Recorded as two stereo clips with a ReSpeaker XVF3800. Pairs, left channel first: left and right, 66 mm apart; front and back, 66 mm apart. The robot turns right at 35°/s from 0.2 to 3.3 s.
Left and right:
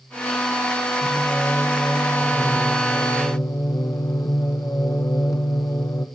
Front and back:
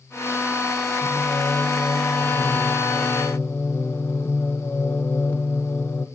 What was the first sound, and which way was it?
Singing, 20° right.